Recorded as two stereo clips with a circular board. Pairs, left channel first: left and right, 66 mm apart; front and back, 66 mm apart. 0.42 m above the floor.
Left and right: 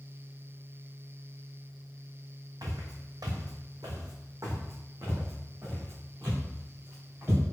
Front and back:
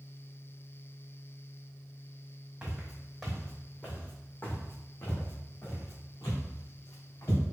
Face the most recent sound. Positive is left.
turn(degrees=-35)